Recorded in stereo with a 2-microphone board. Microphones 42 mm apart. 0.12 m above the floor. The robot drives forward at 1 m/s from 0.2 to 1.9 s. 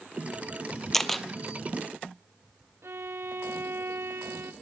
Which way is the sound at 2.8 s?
75° right (ahead or behind).